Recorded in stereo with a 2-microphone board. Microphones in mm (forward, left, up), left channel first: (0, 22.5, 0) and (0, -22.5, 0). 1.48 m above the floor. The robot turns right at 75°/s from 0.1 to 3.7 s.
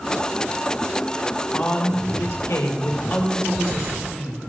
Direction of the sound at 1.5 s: 15° left.